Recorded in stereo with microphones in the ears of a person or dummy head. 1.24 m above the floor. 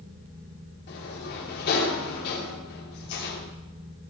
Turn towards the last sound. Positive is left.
turn(degrees=55)  # may be behind; listen again after turning